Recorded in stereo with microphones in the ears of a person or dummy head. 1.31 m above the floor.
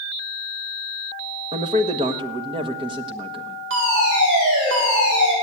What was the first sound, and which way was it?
A man speaking, 20° right (ahead or behind).